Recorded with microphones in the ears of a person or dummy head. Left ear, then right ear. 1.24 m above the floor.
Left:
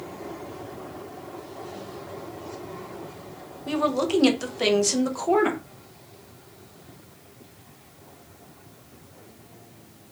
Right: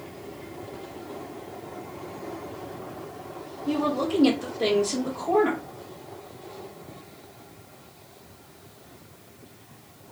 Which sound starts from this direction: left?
A woman speaking, at 3.7 s.